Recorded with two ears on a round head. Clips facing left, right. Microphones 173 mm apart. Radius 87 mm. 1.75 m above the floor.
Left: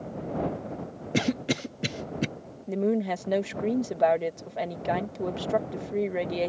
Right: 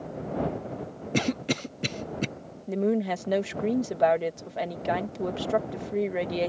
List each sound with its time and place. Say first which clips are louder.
1.1 s a cough: left 1 dB; 5° left (ahead or behind)
2.7 s a woman speaking: even; centre (ahead or behind)